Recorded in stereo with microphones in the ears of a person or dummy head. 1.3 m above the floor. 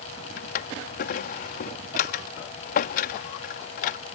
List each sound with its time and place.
0.4 s a drawer: 45° left (ahead or behind)